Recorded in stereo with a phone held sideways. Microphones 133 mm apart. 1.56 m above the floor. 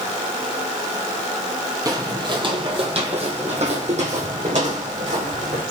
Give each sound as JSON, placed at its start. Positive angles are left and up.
{"t": 1.9, "sound": "footsteps", "side_deg": -25, "distance_m": 2.0}